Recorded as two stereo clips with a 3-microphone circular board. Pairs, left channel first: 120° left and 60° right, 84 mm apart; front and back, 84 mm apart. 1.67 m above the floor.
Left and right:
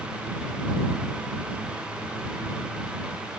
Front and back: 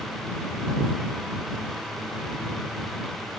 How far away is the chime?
No chime in this recording.